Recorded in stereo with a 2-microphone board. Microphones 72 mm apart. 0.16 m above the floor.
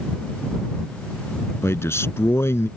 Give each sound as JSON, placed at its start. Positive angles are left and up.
{"t": 1.6, "sound": "a man speaking", "side_deg": 35}